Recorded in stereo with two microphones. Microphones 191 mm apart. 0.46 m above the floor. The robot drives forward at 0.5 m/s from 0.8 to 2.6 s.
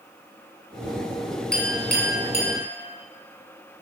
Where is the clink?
50° left (ahead or behind), 3.5 m; by 2.5 s 40° left (ahead or behind), 3.5 m.